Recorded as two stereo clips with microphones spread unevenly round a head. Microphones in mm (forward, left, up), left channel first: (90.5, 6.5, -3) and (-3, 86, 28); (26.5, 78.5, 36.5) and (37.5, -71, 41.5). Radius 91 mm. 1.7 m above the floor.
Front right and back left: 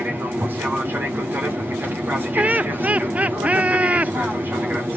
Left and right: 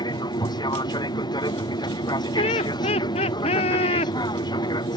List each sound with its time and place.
0.0 s an aircraft: 55° left
2.4 s laughter: 100° left